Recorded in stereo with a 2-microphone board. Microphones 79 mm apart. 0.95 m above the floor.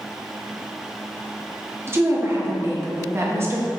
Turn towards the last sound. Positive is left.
turn(degrees=-30)  # may be behind; listen again after turning